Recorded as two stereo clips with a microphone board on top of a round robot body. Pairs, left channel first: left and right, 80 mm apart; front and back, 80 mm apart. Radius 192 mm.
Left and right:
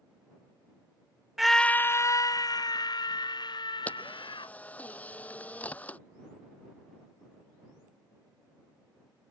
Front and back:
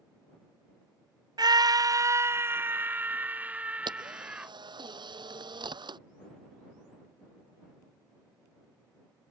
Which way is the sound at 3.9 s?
160° left.